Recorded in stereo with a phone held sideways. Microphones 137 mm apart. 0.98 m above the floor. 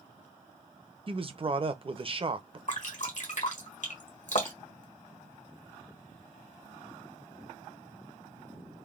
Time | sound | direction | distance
1.1 | a man speaking | 40° right (ahead or behind) | 0.5 m
2.7 | dripping | 60° left (ahead or behind) | 1.1 m